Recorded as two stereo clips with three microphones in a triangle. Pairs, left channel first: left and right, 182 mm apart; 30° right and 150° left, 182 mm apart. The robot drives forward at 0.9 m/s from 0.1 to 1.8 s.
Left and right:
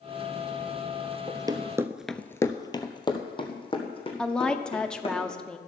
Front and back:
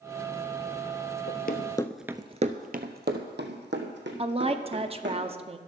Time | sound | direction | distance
1.3 | running footsteps | 20° right | 1.2 m
4.2 | a woman speaking | 175° left | 0.7 m